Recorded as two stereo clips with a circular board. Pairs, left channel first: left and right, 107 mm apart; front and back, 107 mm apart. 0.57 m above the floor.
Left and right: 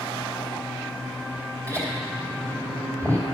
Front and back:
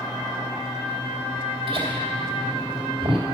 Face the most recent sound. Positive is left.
turn(degrees=-150)